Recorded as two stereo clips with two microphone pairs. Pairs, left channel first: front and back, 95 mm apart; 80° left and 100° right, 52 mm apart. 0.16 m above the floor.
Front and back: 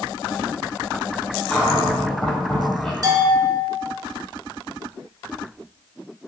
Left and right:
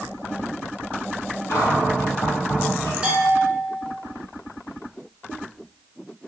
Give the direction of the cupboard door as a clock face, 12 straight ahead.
9 o'clock.